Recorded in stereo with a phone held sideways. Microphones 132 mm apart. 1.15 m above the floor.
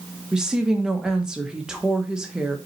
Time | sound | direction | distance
0.3 | a woman speaking | 5° right (ahead or behind) | 1.3 m